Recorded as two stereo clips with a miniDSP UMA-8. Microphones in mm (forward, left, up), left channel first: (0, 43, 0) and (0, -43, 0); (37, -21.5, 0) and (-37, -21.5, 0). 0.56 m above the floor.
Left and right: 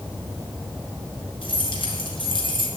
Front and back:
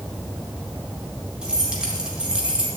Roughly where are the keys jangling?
Left.